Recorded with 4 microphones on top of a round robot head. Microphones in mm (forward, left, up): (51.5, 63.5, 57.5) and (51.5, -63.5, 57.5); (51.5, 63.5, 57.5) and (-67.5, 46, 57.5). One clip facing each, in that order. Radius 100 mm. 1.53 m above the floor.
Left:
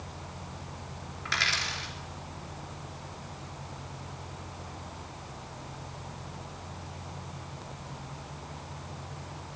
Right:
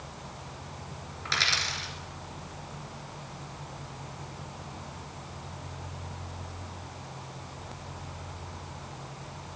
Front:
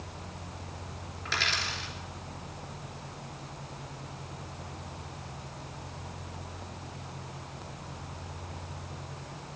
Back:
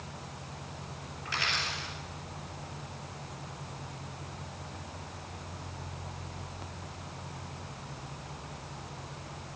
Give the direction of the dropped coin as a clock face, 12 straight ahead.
1 o'clock.